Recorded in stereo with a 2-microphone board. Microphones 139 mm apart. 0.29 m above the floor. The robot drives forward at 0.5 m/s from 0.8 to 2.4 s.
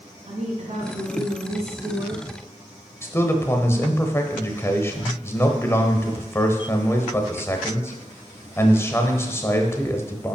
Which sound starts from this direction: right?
A woman speaking, at 0.3 s.